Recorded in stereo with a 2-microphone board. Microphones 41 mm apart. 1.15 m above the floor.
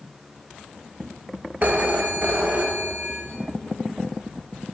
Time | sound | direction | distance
1.6 | a phone ringing | 40° right (ahead or behind) | 0.5 m